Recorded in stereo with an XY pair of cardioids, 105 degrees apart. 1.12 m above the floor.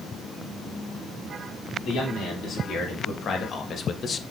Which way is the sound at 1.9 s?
60° left.